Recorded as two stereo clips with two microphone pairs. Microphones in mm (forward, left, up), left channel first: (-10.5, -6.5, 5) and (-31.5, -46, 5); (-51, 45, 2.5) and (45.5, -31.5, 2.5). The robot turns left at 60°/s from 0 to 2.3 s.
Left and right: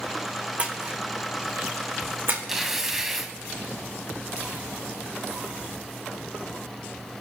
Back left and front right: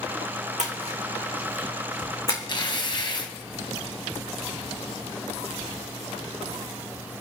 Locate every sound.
0.6 s a splash: 55° right, 3.5 m; by 2.4 s 155° right, 3.5 m
2.5 s tearing paper: 165° left, 1.9 m